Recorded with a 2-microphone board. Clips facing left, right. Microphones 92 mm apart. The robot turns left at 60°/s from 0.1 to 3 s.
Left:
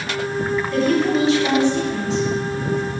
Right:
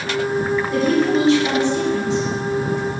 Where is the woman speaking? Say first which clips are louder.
Right 1 dB; 170° right, 1.5 m; by 2.2 s 100° left, 1.5 m.